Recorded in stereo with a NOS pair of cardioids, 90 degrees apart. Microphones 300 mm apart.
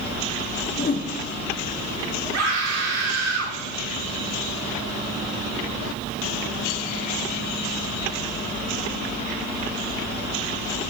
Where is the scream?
60° right, 5 m.